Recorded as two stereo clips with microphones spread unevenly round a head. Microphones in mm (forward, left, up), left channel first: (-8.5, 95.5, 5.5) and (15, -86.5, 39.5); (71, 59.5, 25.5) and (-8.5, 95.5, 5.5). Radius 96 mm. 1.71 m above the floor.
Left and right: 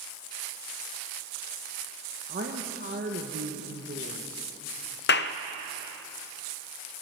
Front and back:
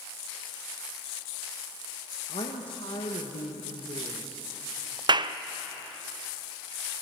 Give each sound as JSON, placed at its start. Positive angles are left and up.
{"t": 2.3, "sound": "a woman speaking", "azimuth_deg": -45, "distance_m": 1.6}
{"t": 5.1, "sound": "a clap", "azimuth_deg": 125, "distance_m": 0.6}